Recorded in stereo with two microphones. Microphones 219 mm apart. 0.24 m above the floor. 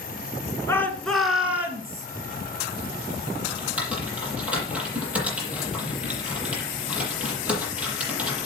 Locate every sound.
0.7 s a shout: 10° left (ahead or behind), 2.5 m; by 2.1 s 15° right (ahead or behind), 3.5 m
3.5 s typing on a keyboard: 5° right (ahead or behind), 7.5 m